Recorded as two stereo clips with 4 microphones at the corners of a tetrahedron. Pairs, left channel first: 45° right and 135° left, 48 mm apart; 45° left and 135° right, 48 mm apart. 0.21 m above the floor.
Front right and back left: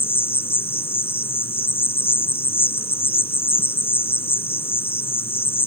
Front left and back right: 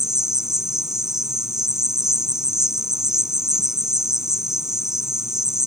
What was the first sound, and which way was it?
An insect, 60° right.